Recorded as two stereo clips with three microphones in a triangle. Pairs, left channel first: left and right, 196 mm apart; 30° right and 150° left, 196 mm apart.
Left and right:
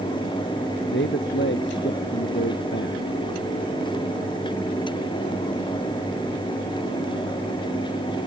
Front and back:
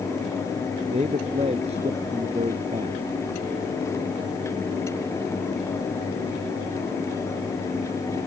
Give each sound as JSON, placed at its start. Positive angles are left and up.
{"t": 0.9, "sound": "a man speaking", "azimuth_deg": 95}